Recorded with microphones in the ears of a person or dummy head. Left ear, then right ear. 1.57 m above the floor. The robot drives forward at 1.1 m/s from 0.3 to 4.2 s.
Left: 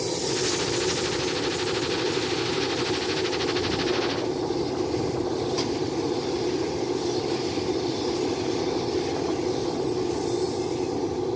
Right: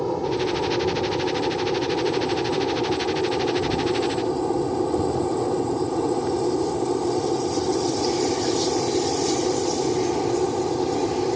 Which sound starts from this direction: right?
An aircraft, at 0.0 s.